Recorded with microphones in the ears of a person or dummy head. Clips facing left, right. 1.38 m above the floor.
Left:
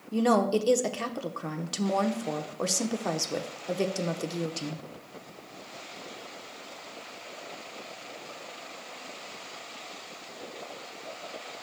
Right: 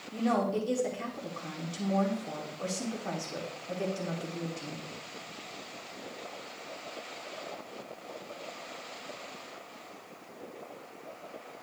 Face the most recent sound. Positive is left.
turn(degrees=75)  # may be behind; listen again after turning